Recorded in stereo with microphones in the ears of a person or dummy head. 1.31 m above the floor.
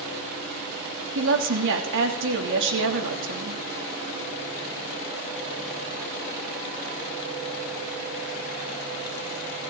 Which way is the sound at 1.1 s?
65° right (ahead or behind).